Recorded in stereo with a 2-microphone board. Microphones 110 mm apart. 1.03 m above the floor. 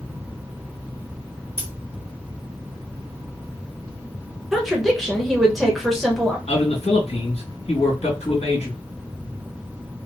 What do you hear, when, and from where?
1.6 s scissors: 20° left (ahead or behind), 2 m
4.5 s a woman speaking: centre (ahead or behind), 0.8 m
6.5 s a man speaking: 75° left (ahead or behind), 2 m